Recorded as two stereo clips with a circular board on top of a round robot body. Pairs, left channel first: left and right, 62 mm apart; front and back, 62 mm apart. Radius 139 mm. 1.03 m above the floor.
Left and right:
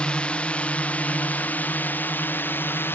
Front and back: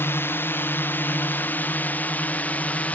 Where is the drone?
25° left; by 3.0 s 55° left.